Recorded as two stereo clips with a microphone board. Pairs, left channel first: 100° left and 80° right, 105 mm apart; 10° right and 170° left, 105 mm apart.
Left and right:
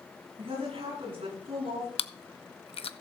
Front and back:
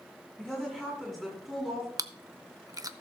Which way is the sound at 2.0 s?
120° left.